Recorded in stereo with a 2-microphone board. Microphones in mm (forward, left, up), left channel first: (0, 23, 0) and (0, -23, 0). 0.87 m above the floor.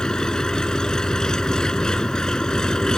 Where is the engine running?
15° left (ahead or behind).